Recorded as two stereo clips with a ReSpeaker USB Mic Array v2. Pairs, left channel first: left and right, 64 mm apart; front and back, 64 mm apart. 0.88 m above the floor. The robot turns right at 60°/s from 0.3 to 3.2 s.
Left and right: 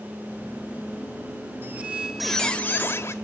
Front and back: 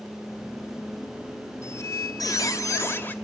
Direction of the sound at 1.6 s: 35° right.